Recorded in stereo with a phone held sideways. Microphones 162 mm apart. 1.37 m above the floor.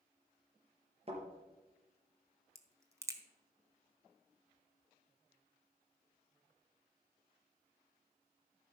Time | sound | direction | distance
1.1 | a thud | 40° right (ahead or behind) | 4 m
2.5 | a crack | 20° right (ahead or behind) | 1.1 m